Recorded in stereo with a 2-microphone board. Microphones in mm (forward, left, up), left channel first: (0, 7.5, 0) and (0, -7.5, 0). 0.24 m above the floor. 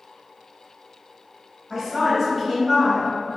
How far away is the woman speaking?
About 1.0 m.